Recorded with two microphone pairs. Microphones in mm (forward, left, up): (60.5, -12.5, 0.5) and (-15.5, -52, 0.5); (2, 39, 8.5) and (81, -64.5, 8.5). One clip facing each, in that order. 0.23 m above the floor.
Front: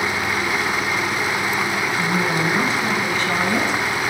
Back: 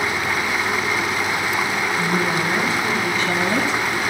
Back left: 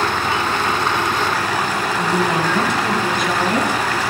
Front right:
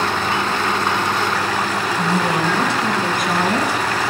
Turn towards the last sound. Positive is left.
turn(degrees=-5)